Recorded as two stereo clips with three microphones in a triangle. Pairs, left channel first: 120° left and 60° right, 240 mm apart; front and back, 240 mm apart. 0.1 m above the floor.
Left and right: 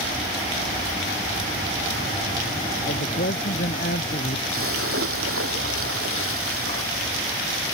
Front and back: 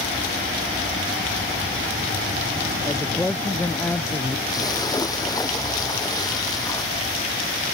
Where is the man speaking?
85° left; by 4.4 s 80° left.